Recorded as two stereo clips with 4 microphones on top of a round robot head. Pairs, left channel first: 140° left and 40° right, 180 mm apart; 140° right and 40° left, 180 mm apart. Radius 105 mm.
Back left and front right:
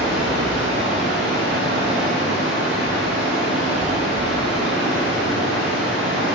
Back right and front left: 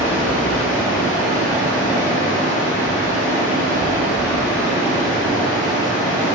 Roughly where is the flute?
I don't hear a flute.